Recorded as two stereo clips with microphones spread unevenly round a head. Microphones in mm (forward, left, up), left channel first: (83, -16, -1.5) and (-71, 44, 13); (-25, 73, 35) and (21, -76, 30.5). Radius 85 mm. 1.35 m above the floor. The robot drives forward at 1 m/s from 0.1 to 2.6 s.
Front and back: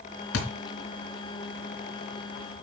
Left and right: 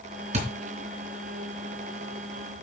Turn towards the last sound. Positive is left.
turn(degrees=-50)